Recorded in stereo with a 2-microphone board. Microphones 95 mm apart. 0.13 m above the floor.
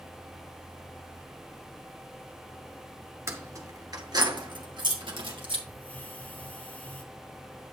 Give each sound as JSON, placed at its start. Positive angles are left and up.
{"t": 3.3, "sound": "keys jangling", "side_deg": -30, "distance_m": 1.5}
{"t": 5.7, "sound": "a hiss", "side_deg": 20, "distance_m": 1.7}